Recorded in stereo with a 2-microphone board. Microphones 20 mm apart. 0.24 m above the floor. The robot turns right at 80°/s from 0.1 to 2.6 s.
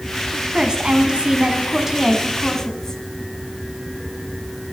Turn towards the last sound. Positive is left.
turn(degrees=30)